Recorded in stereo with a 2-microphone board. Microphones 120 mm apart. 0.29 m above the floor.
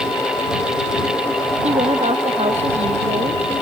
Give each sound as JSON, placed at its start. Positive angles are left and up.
{"t": 1.6, "sound": "a woman speaking", "side_deg": -60}